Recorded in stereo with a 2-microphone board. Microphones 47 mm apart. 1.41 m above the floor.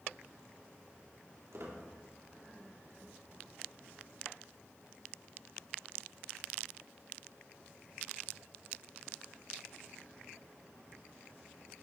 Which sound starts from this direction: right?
A squeak, at 1.5 s.